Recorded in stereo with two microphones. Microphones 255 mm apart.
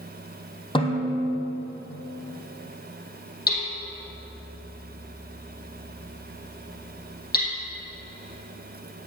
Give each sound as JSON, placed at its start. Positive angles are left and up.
{"t": 0.8, "sound": "a snare drum", "side_deg": 20, "distance_m": 3.5}
{"t": 3.5, "sound": "hammering", "side_deg": 40, "distance_m": 3.5}